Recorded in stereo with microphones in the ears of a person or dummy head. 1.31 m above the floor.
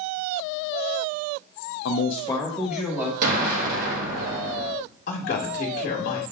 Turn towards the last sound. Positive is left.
turn(degrees=60)  # may be behind; listen again after turning